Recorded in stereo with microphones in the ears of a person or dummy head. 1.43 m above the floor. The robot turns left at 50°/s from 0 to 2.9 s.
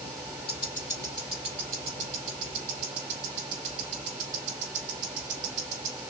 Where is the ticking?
35° left (ahead or behind), 1.6 m; by 6.0 s 55° right (ahead or behind), 1.6 m.